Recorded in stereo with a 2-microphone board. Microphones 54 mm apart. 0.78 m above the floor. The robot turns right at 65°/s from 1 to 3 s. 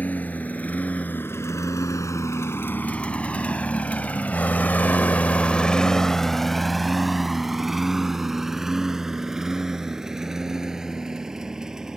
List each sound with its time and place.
0.0 s a lawn mower: 30° left (ahead or behind); by 12.0 s 10° right (ahead or behind)